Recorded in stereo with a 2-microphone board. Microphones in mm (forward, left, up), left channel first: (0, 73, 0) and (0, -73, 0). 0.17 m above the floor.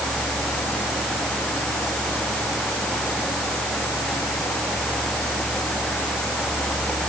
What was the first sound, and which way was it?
Only background noise.